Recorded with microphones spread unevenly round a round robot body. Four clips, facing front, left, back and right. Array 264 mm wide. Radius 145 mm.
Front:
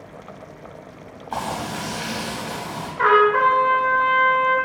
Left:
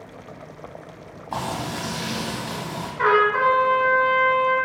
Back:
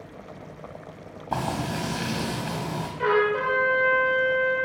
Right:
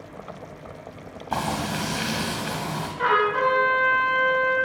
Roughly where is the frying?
Behind.